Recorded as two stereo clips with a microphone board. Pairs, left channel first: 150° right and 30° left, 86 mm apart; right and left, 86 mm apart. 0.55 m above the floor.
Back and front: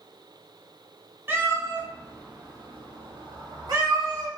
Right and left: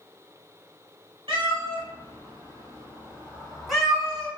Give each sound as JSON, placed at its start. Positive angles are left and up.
{"t": 1.3, "sound": "a cat meowing", "azimuth_deg": 90, "distance_m": 1.0}